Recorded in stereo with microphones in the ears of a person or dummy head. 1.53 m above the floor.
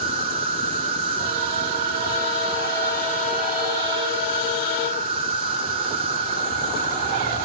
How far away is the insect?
About 0.8 m.